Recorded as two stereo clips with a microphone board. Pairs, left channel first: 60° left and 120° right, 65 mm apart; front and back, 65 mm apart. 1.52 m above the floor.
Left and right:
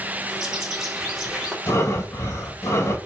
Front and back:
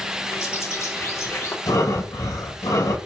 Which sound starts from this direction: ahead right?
A bird, at 0.3 s.